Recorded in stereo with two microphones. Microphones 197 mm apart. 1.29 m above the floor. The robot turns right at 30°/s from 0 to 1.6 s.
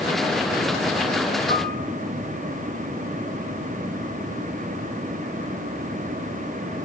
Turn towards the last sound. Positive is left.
turn(degrees=50)  # may be behind; listen again after turning